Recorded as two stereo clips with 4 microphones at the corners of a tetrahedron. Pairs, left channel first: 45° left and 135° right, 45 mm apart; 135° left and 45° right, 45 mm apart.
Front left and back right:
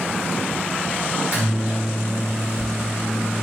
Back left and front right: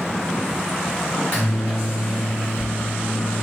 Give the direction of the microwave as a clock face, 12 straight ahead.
6 o'clock.